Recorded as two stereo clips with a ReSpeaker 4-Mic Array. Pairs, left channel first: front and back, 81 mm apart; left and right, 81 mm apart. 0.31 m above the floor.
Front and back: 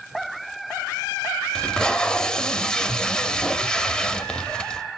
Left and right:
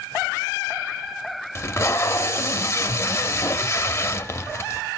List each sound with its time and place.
1.6 s tape being pulled: 70° left, 0.5 m